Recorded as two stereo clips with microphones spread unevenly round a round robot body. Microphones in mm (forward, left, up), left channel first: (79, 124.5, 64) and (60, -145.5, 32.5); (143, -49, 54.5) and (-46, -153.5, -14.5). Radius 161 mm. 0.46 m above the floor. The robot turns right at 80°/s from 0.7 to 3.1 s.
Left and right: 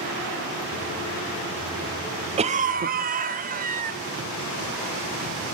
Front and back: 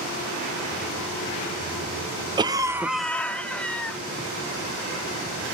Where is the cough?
135° right, 0.9 m; by 4.0 s 80° right, 0.9 m.